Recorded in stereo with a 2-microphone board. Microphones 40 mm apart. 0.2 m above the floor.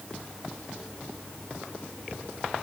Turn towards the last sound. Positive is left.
No sound to turn to.